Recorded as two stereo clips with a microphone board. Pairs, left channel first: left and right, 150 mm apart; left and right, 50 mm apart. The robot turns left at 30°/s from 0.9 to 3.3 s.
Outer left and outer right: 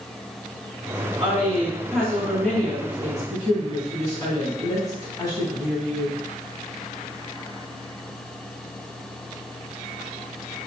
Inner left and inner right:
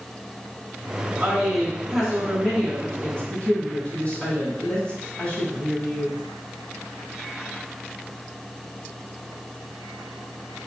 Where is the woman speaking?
160° right, 1.9 m; by 6.2 s 135° left, 1.9 m.